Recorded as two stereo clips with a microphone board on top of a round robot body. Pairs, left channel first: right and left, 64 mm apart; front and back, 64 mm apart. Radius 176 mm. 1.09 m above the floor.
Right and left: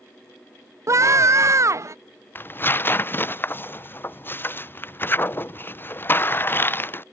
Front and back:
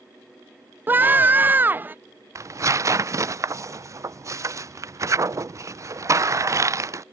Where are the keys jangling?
No keys jangling in this recording.